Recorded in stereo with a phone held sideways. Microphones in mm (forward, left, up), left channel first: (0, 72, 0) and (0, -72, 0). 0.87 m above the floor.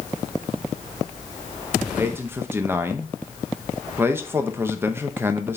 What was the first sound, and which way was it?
A man speaking, 15° right (ahead or behind).